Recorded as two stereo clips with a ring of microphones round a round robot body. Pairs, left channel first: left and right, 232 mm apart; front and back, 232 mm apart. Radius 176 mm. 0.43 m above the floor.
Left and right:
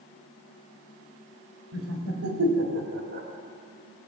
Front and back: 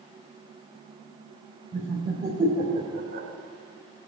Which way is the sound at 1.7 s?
90° right.